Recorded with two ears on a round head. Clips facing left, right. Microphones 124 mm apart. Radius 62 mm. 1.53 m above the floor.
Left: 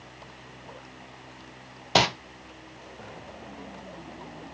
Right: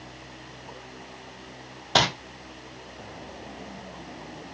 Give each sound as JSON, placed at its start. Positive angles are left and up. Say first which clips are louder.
{"t": 1.9, "sound": "crumpling", "louder": "left 1 dB", "side_deg": 10, "distance_m": 0.6}